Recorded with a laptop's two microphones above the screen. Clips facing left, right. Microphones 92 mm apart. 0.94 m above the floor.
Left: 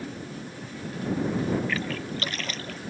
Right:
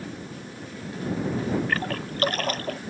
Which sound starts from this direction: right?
A splash, at 1.7 s.